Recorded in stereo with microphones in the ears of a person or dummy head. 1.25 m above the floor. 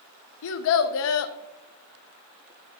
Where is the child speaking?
75° left (ahead or behind), 0.6 m.